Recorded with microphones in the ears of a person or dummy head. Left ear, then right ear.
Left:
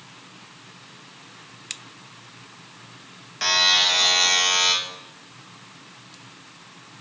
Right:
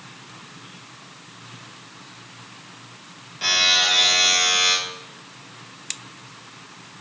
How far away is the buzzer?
About 2.5 m.